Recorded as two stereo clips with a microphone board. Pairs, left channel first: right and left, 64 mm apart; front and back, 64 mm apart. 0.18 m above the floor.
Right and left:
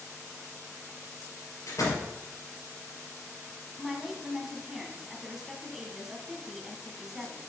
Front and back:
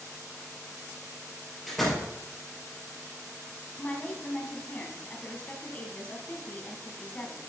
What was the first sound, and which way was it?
A door slam, 85° right.